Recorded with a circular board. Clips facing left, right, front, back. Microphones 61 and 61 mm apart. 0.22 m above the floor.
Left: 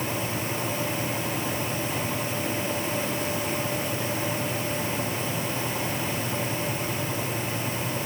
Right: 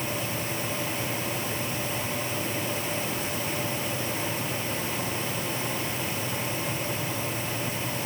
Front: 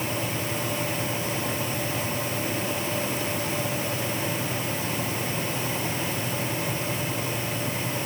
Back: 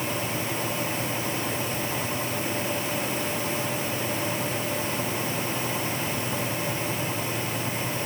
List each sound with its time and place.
Only background noise.